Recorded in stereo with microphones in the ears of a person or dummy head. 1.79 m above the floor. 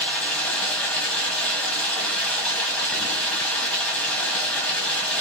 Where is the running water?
Centre (ahead or behind), 1.3 m.